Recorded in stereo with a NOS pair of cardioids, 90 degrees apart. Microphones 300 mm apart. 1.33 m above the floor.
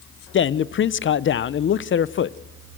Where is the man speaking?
40° left, 0.8 m.